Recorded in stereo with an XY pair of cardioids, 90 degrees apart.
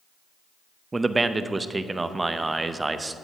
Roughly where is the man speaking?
Ahead right.